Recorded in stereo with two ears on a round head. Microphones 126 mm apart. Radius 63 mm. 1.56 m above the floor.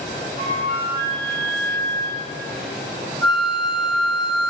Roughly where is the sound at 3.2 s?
Centre.